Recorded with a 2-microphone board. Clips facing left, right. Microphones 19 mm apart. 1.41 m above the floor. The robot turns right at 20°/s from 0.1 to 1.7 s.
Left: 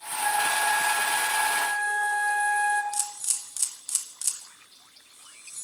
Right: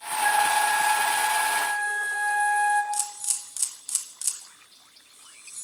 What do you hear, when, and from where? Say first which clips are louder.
0.2 s a flute: right 3 dB; 25° right (ahead or behind), 2 m; by 2.8 s 5° left (ahead or behind), 2 m
2.9 s a camera shutter: right 1 dB; 5° right (ahead or behind), 2 m